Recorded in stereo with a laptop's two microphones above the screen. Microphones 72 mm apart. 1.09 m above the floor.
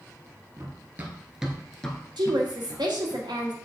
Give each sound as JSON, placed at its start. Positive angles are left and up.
{"t": 0.6, "sound": "running footsteps", "side_deg": -35, "distance_m": 1.5}
{"t": 2.2, "sound": "a woman speaking", "side_deg": -80, "distance_m": 1.5}